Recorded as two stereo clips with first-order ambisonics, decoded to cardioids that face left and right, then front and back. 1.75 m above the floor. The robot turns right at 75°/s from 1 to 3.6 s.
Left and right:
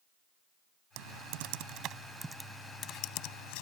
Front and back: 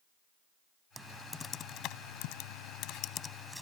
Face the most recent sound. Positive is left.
turn(degrees=90)